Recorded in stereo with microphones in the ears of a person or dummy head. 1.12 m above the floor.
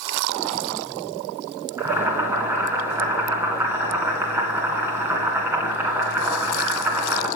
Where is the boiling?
15° right (ahead or behind), 1.7 m.